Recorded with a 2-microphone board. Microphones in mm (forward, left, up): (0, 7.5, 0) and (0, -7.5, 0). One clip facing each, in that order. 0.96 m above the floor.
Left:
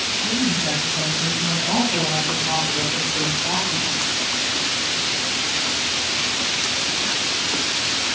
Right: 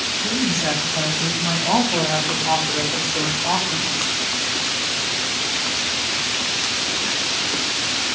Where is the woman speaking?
75° right (ahead or behind), 5.5 m; by 4.1 s 50° right (ahead or behind), 4 m.